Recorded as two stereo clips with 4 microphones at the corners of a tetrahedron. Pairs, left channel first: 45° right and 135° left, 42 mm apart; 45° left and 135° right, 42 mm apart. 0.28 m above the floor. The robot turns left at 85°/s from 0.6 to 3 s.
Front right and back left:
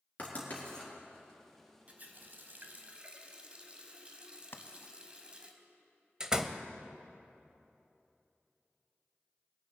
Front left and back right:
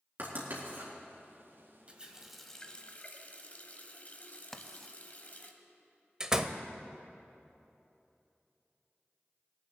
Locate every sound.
0.2 s writing: 100° right, 3.5 m; by 0.9 s 125° right, 3.5 m
1.9 s a running tap: 175° left, 1.0 m; by 5.5 s 80° left, 1.0 m
4.5 s writing: 35° right, 0.7 m
6.2 s a door slam: 175° left, 0.6 m